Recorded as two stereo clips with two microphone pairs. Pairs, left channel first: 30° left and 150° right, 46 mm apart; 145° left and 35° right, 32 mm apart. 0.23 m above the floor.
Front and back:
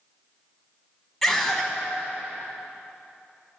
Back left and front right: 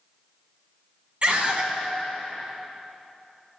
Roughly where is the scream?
Ahead right.